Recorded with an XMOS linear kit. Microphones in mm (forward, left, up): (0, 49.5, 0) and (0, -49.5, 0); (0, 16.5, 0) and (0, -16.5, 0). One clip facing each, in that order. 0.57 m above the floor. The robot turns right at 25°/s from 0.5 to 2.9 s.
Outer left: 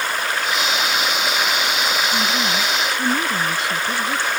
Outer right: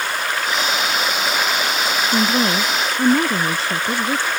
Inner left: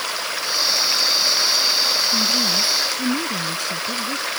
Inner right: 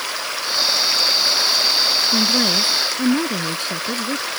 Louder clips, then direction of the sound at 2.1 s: Outer right 3 dB, inner right 2 dB; 55° right (ahead or behind).